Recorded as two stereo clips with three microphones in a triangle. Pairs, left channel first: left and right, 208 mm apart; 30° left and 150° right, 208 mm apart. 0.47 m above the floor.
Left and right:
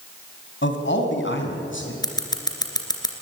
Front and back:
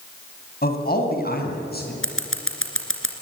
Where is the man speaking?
70° left, 3 m.